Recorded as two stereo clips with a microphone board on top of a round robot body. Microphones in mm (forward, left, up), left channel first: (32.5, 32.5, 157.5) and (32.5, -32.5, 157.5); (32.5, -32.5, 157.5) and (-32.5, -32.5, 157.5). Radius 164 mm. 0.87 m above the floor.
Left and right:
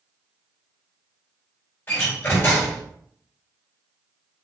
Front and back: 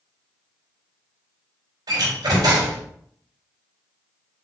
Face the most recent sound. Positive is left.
turn(degrees=150)